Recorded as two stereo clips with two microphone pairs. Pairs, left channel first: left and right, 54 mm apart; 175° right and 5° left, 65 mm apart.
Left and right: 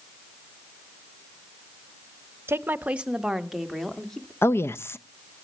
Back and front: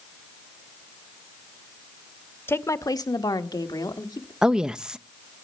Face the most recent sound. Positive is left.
turn(degrees=85)